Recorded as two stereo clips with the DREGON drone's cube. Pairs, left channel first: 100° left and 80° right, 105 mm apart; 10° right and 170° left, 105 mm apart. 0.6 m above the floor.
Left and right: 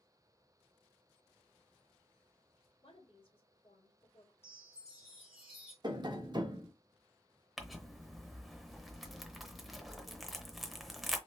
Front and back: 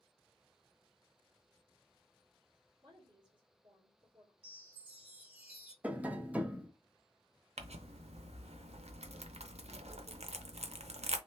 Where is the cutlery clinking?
I don't hear cutlery clinking.